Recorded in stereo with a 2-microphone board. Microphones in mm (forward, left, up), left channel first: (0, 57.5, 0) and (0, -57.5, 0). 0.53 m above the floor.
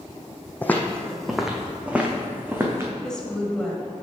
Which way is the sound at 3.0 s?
5° left (ahead or behind).